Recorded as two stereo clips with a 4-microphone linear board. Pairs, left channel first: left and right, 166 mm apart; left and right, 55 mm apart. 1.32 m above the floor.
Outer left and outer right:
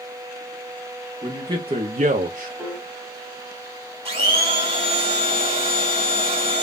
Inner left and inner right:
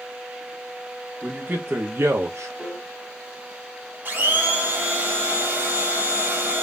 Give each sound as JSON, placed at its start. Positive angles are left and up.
{"t": 1.2, "sound": "a man speaking", "side_deg": -25, "distance_m": 0.9}
{"t": 2.6, "sound": "a piano", "side_deg": -5, "distance_m": 0.8}
{"t": 4.0, "sound": "a blender", "side_deg": -35, "distance_m": 1.4}